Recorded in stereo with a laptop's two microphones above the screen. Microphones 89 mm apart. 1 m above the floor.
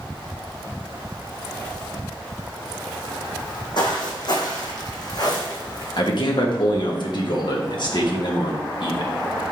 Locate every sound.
3.4 s footsteps: 55° left (ahead or behind), 1.7 m; by 5.9 s 45° left (ahead or behind), 2.5 m
6.0 s a man speaking: 55° left (ahead or behind), 1.3 m